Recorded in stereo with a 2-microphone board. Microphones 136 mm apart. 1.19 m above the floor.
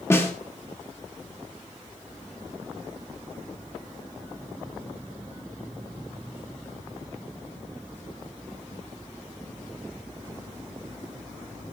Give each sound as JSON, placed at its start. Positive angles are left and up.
{"t": 0.1, "sound": "a snare drum", "side_deg": 15, "distance_m": 1.8}